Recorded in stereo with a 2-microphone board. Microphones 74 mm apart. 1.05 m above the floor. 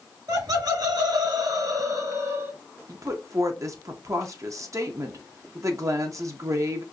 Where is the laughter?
60° right (ahead or behind), 1.4 m; by 2.5 s 35° right (ahead or behind), 1.1 m.